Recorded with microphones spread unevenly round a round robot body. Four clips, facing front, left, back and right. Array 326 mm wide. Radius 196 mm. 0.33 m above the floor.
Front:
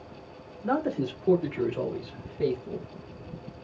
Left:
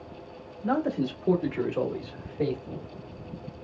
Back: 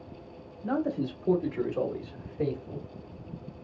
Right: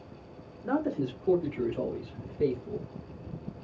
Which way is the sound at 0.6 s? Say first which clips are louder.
Left 3 dB, front 2 dB; 30° left.